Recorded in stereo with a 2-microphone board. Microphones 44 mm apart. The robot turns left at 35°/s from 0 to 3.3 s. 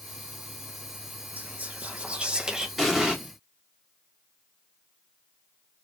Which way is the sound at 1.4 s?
110° right.